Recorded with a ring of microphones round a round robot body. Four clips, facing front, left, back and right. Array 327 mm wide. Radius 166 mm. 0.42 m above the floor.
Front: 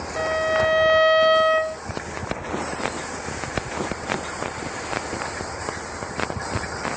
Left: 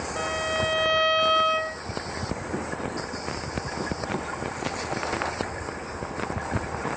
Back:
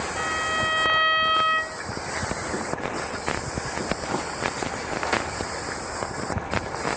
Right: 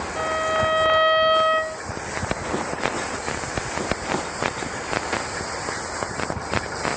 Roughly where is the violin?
Ahead.